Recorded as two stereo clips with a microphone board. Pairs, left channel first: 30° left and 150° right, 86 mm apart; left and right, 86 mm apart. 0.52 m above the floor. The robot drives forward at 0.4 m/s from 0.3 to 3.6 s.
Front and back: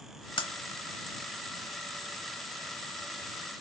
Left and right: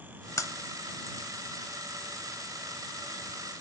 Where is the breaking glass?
40° left, 0.8 m.